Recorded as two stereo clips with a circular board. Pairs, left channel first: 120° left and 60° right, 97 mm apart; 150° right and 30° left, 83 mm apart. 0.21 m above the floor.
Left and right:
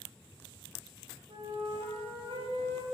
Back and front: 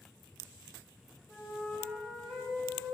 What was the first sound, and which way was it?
A flute, 60° right.